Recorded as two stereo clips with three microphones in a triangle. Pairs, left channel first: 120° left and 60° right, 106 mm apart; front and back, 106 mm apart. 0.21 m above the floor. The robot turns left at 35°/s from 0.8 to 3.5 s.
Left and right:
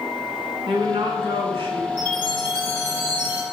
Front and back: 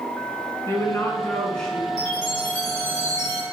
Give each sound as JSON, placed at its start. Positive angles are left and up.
{"t": 0.7, "sound": "a woman speaking", "azimuth_deg": -55, "distance_m": 2.5}
{"t": 2.0, "sound": "a chime", "azimuth_deg": -85, "distance_m": 2.5}